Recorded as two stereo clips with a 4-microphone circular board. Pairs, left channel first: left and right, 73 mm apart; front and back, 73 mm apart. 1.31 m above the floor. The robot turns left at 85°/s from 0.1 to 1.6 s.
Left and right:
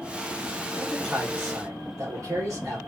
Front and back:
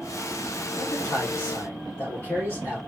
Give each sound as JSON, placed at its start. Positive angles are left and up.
{"t": 0.8, "sound": "a man speaking", "azimuth_deg": 20, "distance_m": 1.3}